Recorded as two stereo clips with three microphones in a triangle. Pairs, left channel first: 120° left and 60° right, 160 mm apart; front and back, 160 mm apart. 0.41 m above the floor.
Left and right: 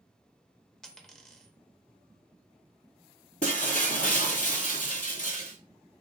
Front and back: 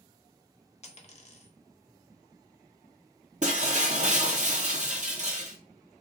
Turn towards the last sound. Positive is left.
turn(degrees=145)